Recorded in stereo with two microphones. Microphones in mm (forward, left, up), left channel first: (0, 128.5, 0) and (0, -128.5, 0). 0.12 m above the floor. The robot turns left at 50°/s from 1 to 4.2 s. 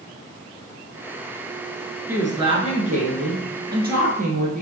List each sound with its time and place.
2.1 s a woman speaking: 15° right, 1.4 m; by 4.6 s 120° right, 1.4 m